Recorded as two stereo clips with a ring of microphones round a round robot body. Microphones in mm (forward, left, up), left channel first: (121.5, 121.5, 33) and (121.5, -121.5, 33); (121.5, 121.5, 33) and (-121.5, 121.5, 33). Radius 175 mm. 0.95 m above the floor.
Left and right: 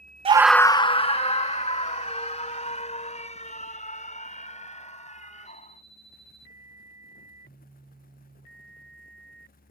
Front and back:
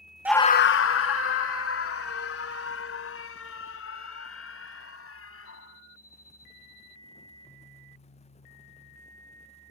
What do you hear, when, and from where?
0.2 s a scream: 110° right; by 5.8 s 30° left